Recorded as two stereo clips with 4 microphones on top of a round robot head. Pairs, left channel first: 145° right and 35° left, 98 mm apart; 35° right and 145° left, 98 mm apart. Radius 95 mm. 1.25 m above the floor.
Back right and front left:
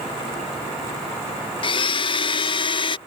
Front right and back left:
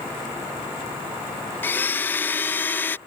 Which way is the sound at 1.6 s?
105° right.